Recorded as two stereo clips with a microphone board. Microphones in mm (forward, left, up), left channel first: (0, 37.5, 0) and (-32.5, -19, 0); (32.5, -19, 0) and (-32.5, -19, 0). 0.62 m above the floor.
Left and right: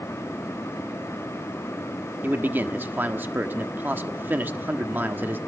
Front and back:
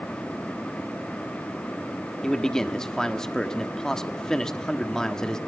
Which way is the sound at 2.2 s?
75° right.